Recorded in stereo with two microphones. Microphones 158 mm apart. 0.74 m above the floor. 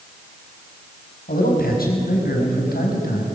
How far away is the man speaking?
About 5.5 m.